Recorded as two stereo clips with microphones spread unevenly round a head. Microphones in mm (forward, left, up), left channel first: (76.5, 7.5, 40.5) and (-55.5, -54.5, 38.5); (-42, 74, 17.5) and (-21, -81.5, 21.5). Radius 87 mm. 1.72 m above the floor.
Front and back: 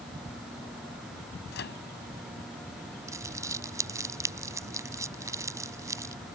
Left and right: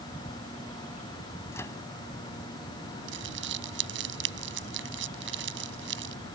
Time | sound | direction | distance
1.5 | a microwave | 20° left | ?
3.1 | crumpling | 85° right | ?